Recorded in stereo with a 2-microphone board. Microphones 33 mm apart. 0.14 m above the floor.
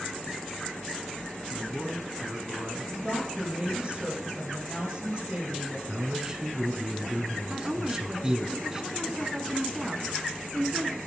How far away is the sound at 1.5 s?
About 1.7 m.